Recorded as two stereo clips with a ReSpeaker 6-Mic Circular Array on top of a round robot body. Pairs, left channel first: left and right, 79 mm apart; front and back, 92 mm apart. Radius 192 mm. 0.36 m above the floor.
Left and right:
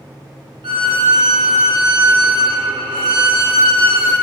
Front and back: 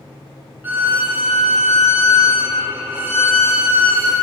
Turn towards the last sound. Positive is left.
turn(degrees=-110)